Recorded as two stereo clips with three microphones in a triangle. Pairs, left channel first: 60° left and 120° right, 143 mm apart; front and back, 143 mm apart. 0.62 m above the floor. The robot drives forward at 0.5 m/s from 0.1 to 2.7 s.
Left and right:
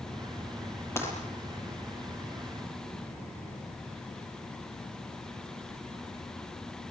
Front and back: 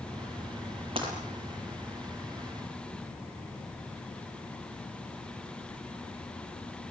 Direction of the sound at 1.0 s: 130° left.